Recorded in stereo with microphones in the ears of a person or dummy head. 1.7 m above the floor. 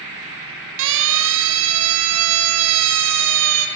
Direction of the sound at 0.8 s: 70° right (ahead or behind).